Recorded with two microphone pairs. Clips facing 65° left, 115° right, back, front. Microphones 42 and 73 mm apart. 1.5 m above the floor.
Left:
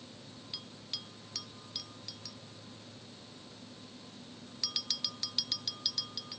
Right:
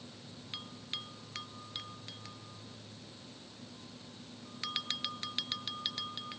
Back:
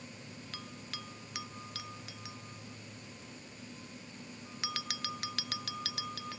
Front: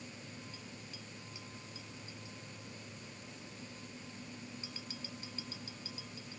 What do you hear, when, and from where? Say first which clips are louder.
0.5 s a bell: right 4 dB, back 4 dB; 175° right